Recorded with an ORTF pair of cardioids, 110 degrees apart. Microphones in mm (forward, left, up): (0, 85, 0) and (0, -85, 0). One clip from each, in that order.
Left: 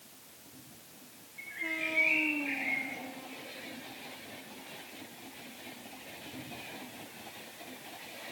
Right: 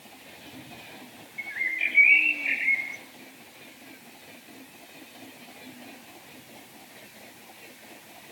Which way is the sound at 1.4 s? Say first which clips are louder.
Right 8 dB; 50° right.